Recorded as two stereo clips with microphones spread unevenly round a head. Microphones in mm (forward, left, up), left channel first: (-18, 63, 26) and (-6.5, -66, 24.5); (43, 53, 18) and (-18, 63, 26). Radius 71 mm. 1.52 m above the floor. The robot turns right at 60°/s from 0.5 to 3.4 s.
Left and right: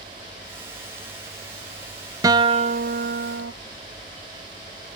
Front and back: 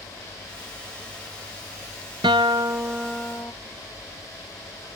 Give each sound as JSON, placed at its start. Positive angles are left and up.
{"t": 2.2, "sound": "a guitar", "azimuth_deg": -150, "distance_m": 0.5}